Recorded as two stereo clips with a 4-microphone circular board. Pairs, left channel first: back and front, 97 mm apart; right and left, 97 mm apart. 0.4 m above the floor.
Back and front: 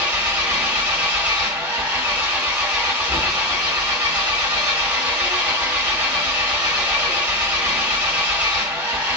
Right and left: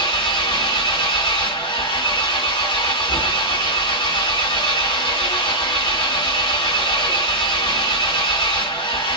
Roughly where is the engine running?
Right.